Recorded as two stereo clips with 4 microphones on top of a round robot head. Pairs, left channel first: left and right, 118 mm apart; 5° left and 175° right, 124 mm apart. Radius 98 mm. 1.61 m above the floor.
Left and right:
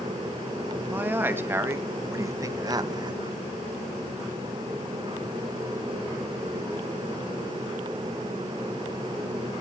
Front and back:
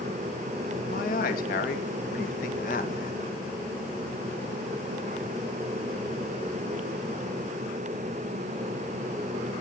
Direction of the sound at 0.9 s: 15° right.